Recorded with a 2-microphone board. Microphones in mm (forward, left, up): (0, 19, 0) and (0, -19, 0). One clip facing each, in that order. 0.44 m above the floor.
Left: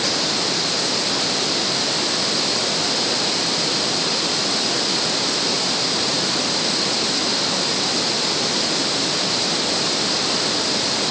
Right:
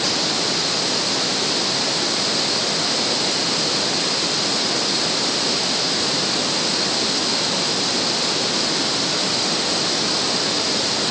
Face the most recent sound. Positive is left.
No sound to turn to.